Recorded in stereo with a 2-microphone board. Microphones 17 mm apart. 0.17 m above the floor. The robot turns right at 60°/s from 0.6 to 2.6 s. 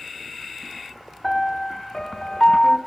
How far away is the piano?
About 0.6 m.